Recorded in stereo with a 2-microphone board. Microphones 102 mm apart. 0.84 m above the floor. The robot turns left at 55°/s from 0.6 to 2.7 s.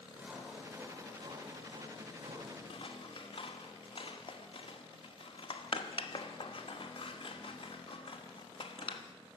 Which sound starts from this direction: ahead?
Sawing, at 0.2 s.